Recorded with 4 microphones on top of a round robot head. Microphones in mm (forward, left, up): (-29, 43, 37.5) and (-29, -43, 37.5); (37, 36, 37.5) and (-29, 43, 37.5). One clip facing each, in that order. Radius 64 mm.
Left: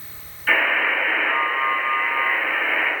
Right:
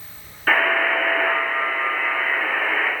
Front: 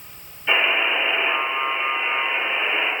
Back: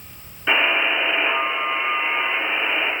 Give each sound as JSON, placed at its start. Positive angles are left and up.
{"t": 0.5, "sound": "a buzzer", "azimuth_deg": -135, "distance_m": 1.2}